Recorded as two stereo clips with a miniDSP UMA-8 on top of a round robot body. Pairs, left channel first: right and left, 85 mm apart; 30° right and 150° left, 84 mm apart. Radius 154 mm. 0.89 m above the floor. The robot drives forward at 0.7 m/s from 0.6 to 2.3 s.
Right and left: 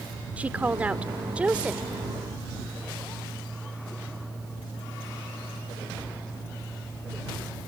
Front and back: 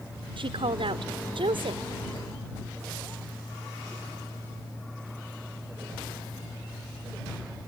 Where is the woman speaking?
165° left.